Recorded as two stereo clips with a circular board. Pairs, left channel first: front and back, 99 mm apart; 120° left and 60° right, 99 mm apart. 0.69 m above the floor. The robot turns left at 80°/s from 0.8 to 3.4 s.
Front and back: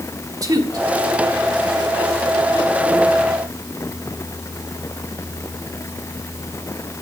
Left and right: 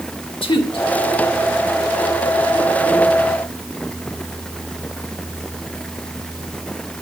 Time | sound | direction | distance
0.4 | a woman speaking | 135° left | 1.6 m